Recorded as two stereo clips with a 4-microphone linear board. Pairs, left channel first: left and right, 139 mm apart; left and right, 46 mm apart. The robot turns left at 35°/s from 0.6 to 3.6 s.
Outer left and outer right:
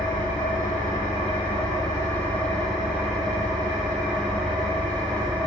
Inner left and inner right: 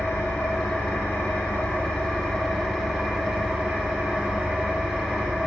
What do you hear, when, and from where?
0.0 s an engine running: 70° left, 1.0 m; by 5.5 s 35° right, 1.0 m